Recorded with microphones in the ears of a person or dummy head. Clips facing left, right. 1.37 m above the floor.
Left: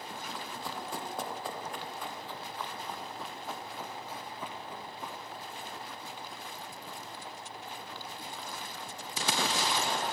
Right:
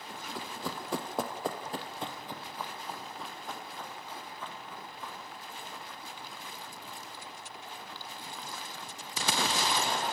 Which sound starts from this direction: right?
Running footsteps, at 0.3 s.